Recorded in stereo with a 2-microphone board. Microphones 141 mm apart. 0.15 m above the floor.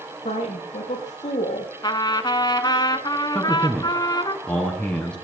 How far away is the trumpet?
About 0.9 m.